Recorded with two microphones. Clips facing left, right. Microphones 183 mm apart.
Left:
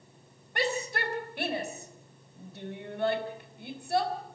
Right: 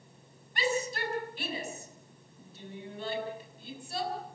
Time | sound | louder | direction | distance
0.6 | a shout | even | 60° left (ahead or behind) | 4 m